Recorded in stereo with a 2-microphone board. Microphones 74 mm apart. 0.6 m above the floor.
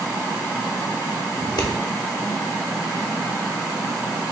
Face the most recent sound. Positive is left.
turn(degrees=70)  # may be behind; listen again after turning